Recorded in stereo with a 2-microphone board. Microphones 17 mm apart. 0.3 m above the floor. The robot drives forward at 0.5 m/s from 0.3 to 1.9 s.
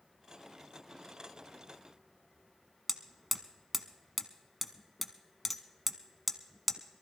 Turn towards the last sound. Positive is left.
turn(degrees=0)  # may be behind; listen again after turning